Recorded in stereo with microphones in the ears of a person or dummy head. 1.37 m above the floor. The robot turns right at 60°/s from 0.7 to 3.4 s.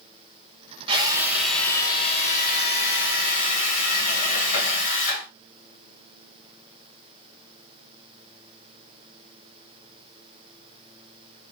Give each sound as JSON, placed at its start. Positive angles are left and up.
{"t": 0.9, "sound": "a drill", "azimuth_deg": -35, "distance_m": 0.8}